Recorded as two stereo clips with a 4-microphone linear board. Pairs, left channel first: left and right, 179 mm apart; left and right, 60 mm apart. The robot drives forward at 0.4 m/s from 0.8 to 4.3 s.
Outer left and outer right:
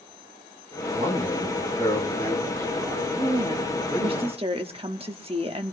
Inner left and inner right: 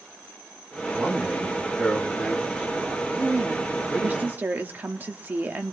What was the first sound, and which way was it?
A man speaking, 30° right (ahead or behind).